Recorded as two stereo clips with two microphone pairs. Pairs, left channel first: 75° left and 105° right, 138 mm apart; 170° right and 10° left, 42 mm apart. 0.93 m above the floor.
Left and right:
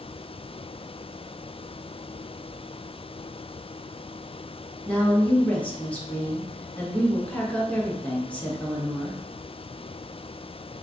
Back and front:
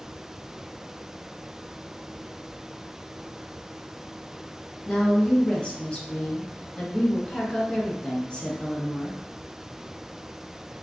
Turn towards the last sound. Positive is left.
turn(degrees=145)